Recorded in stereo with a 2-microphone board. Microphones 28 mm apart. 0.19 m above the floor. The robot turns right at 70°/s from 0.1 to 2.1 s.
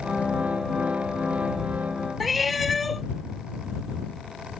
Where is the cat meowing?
Centre (ahead or behind).